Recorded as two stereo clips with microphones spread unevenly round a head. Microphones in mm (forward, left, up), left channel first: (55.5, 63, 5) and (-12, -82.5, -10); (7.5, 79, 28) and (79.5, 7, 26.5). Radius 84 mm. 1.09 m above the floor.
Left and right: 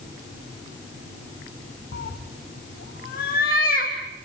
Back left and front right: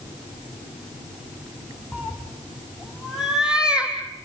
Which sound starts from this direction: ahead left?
A cat meowing, at 1.9 s.